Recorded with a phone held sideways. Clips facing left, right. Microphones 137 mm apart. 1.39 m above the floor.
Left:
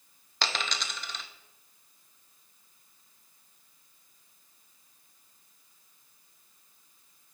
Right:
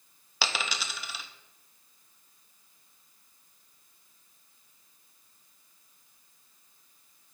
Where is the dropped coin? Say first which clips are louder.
Even; 5° right (ahead or behind), 0.7 m.